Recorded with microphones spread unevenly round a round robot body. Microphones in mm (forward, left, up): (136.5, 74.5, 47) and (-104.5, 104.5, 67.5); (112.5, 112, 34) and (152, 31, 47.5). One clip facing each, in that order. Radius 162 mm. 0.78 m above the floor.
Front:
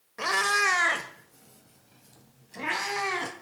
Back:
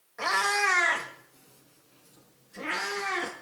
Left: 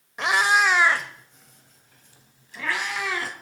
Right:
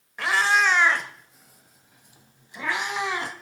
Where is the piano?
I don't hear a piano.